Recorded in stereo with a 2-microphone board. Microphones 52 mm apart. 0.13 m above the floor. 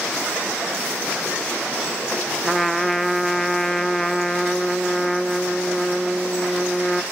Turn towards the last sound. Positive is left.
turn(degrees=5)  # may be behind; listen again after turning